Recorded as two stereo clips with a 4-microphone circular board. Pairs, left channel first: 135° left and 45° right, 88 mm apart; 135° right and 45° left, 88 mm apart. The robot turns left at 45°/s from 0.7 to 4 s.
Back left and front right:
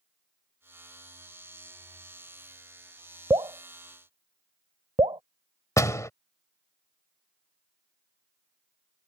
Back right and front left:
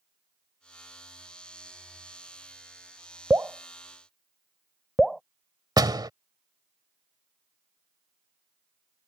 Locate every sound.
3.3 s dripping: 15° right; by 5.2 s 45° right
5.8 s a door slam: 80° left